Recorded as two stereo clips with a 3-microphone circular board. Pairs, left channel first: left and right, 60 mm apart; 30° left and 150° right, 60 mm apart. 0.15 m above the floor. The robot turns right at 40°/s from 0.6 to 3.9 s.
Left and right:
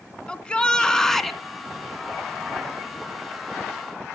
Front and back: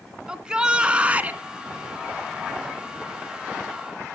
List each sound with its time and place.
0.3 s a shout: 150° left, 1.8 m; by 1.4 s straight behind, 1.8 m